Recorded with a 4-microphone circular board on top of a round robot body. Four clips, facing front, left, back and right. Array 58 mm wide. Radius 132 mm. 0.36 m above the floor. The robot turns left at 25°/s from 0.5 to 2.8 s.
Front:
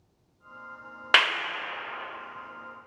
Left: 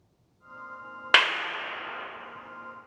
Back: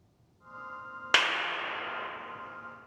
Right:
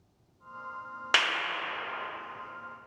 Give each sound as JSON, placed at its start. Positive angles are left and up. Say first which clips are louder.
{"t": 1.1, "sound": "a clap", "louder": "left 5 dB, front 4 dB", "azimuth_deg": 45, "distance_m": 0.7}